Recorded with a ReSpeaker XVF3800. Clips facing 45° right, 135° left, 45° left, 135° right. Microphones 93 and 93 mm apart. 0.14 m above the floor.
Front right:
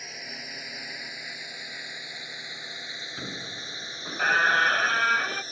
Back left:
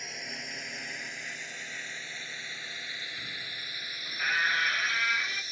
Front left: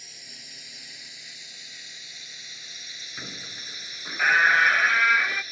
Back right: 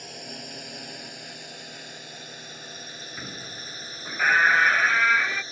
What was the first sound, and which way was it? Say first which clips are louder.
A drone: even, back right 12 dB; 135° right.